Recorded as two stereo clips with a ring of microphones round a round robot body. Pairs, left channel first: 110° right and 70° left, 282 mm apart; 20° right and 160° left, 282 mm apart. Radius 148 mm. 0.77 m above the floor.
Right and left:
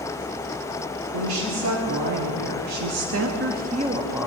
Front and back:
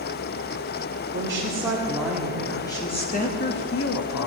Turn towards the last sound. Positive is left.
turn(degrees=-15)